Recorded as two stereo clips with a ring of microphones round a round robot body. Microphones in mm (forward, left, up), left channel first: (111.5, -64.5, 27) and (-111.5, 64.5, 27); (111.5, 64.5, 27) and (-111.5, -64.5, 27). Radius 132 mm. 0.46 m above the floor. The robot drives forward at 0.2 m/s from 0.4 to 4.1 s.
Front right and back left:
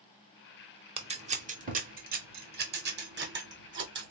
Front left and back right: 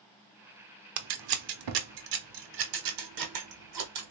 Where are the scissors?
140° right, 0.6 m; by 4.1 s 160° right, 1.2 m.